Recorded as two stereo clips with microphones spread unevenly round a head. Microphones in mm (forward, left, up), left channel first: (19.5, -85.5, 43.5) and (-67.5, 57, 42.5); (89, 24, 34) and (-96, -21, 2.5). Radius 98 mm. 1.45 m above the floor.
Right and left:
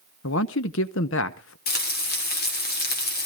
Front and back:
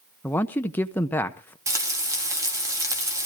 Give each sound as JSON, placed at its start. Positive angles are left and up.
{"t": 0.2, "sound": "a man speaking", "azimuth_deg": -65, "distance_m": 0.9}
{"t": 1.7, "sound": "frying", "azimuth_deg": -90, "distance_m": 3.0}